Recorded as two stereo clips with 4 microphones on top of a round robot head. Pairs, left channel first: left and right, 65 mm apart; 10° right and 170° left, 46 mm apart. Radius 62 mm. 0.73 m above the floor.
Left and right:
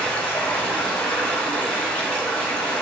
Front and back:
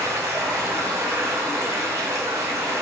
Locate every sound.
0.0 s running water: 160° left, 2.5 m